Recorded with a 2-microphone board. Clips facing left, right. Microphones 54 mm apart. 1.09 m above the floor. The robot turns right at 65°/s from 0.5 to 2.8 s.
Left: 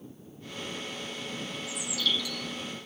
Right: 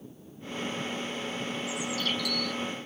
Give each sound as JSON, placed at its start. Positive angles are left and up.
{"t": 1.7, "sound": "a bird", "azimuth_deg": -155}